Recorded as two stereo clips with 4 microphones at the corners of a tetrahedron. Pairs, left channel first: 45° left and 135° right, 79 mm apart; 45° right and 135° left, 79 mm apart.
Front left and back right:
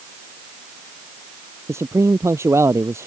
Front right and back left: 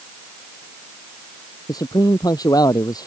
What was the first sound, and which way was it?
A man speaking, 80° right.